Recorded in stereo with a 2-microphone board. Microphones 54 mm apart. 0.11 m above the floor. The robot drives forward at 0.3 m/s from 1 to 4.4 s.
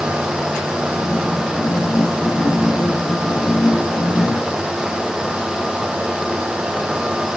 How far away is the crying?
I don't hear crying.